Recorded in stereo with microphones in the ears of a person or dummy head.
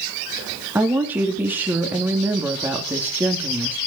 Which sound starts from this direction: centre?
A woman speaking, at 0.8 s.